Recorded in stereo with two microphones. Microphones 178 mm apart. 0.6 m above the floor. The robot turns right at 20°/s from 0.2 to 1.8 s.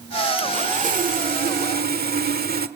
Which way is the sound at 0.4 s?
45° right (ahead or behind).